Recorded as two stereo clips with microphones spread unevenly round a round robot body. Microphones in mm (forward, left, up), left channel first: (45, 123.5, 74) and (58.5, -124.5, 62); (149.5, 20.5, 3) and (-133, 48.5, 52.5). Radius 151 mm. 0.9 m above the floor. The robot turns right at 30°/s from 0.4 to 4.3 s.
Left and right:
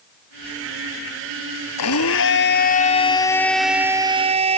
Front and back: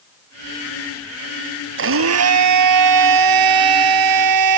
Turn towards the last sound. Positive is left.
turn(degrees=-155)